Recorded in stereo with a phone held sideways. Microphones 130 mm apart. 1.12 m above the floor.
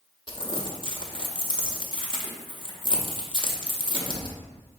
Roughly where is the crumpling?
Left.